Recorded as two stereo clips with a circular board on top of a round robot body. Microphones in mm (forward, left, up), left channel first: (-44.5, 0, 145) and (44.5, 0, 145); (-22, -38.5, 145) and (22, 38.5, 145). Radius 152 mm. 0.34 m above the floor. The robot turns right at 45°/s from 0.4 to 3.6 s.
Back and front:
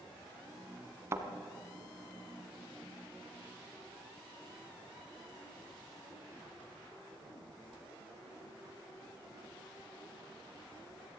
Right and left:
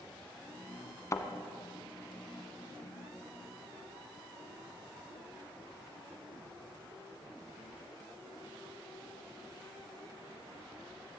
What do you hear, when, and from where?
1.1 s a thud: 60° right, 1.4 m; by 1.3 s 55° right, 1.4 m